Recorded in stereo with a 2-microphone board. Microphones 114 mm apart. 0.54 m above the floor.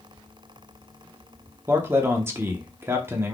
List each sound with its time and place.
1.7 s a man speaking: 20° right (ahead or behind), 0.7 m